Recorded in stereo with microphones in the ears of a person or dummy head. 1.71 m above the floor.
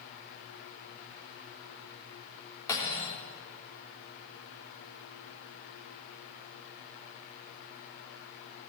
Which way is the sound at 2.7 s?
15° left (ahead or behind).